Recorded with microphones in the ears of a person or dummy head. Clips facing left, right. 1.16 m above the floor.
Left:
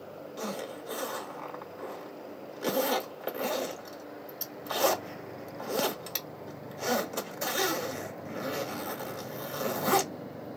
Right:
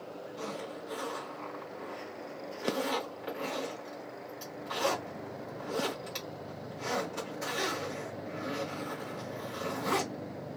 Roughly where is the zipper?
Left.